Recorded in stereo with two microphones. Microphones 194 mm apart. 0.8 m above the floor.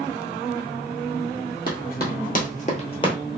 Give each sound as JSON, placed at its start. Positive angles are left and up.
{"t": 1.7, "sound": "running footsteps", "side_deg": 50, "distance_m": 1.4}